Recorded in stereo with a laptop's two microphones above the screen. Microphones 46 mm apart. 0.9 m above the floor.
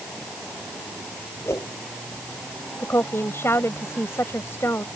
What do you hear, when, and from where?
1.4 s a whoosh: 80° left
2.8 s a woman speaking: 65° left (ahead or behind)